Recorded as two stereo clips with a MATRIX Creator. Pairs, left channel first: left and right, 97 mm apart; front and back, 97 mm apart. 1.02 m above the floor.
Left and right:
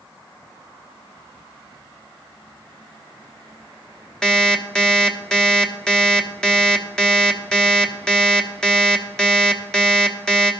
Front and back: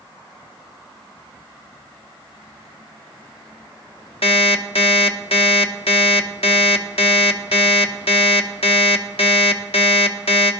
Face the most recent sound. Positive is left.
turn(degrees=10)